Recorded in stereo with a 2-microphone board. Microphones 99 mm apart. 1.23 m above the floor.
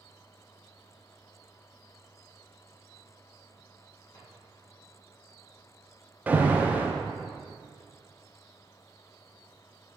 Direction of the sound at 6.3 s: 20° right (ahead or behind).